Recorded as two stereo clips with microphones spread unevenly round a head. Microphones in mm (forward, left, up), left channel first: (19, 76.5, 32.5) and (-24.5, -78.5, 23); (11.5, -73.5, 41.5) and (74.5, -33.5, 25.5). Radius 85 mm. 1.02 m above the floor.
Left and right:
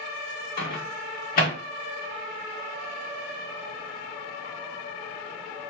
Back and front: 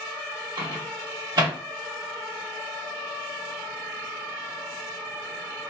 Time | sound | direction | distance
0.6 | a microwave | 40° left | 1.2 m